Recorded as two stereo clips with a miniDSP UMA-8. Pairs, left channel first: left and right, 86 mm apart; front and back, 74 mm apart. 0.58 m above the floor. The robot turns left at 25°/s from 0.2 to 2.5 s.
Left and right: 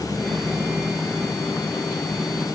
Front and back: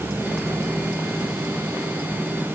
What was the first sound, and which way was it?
Only background noise.